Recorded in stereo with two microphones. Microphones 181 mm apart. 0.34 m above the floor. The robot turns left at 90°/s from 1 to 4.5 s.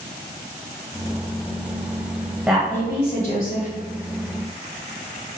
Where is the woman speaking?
170° right, 1.5 m; by 3.7 s 80° left, 1.5 m.